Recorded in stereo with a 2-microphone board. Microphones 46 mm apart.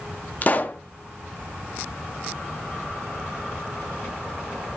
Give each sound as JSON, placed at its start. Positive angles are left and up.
{"t": 0.4, "sound": "a pop", "side_deg": 35, "distance_m": 0.7}